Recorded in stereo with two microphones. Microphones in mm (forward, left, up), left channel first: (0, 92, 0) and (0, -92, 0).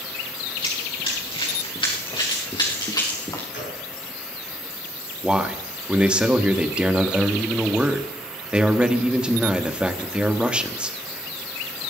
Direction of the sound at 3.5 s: 90° left.